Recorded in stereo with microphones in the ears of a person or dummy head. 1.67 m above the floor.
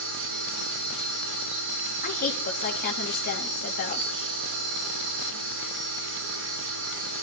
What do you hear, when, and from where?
0.0 s a machine running: 70° right (ahead or behind), 9 m
2.0 s a woman speaking: 55° left (ahead or behind), 3.5 m